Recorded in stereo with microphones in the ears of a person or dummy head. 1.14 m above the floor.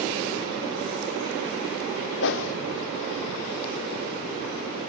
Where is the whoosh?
65° left (ahead or behind), 1.3 m.